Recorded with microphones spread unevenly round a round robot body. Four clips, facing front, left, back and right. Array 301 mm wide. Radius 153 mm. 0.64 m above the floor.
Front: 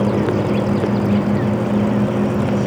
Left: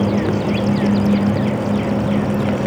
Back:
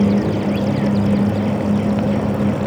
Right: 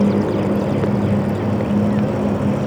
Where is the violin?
I don't hear a violin.